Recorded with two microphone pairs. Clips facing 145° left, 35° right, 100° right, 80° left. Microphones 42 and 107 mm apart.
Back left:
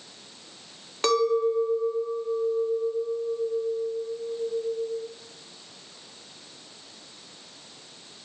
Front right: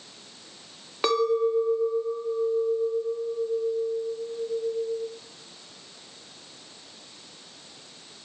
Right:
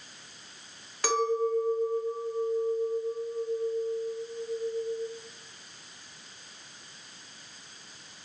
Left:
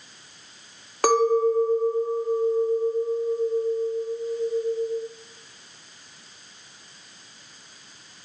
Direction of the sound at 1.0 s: 40° left.